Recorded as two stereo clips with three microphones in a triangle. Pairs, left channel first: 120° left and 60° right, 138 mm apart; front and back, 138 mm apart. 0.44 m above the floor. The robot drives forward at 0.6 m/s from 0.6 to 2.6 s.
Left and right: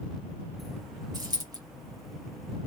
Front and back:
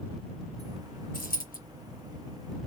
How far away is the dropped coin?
About 2.5 m.